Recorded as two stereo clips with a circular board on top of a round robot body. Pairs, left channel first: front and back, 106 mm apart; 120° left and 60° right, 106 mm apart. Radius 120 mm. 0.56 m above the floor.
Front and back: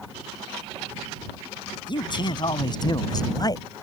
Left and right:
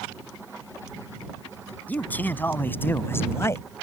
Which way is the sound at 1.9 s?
45° left.